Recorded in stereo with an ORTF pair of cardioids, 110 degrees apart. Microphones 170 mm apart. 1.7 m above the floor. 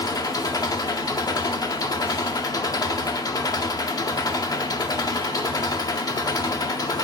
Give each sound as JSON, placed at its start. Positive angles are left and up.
{"t": 0.0, "sound": "an engine running", "azimuth_deg": 25, "distance_m": 1.0}